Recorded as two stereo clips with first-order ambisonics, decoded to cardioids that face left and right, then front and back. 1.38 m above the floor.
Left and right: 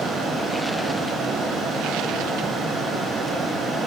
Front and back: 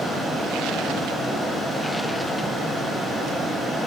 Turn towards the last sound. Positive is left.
No sound to turn to.